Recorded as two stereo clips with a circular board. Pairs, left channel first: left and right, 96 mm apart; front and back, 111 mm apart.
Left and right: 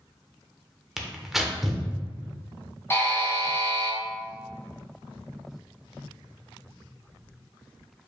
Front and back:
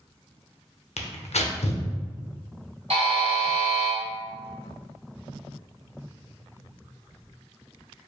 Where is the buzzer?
155° left, 1.2 m.